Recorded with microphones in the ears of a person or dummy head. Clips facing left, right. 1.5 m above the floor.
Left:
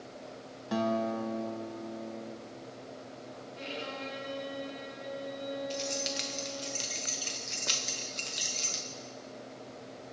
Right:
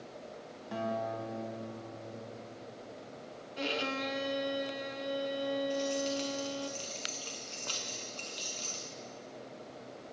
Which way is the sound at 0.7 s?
75° left (ahead or behind).